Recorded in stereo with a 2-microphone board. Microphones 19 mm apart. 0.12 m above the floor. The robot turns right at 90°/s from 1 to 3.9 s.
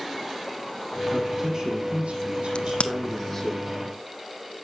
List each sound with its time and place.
1.1 s a man speaking: straight behind, 5 m; by 3.5 s 40° left, 5 m
2.5 s a crack: 60° left (ahead or behind), 1.0 m; by 2.9 s 80° left, 1.0 m